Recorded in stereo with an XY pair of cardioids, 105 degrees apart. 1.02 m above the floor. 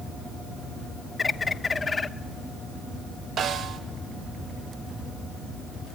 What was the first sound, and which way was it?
A bird, 30° left.